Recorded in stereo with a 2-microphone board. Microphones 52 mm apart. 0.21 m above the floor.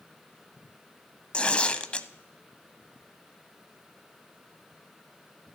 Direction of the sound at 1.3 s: 20° left (ahead or behind).